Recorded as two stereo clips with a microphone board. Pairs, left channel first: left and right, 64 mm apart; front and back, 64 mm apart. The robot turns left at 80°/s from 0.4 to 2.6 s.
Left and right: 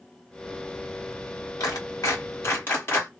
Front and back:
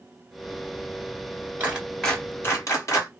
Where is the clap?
115° left, 1.9 m; by 3.1 s 35° left, 1.9 m.